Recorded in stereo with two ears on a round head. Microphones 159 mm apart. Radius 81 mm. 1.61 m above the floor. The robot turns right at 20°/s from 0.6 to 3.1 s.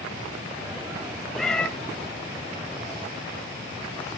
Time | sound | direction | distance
1.4 | a cat meowing | centre (ahead or behind) | 0.9 m